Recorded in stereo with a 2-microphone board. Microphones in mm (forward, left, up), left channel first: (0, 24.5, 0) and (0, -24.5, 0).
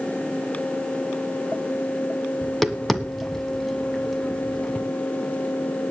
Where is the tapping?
Centre (ahead or behind), 1.5 m.